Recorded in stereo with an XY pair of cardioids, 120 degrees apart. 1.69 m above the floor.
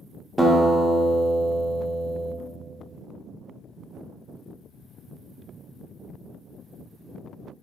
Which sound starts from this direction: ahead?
A guitar, at 0.4 s.